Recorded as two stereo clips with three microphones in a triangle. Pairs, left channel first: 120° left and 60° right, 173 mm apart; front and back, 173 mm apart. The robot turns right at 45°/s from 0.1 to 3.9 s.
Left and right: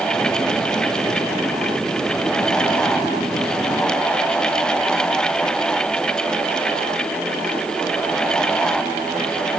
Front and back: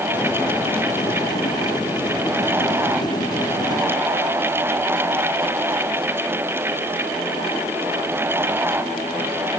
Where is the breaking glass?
No breaking glass in this recording.